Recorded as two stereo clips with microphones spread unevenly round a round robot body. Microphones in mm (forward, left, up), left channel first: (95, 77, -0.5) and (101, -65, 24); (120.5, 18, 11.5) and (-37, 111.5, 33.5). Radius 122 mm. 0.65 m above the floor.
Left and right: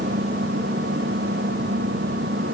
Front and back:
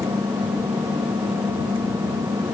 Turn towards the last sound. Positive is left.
turn(degrees=-130)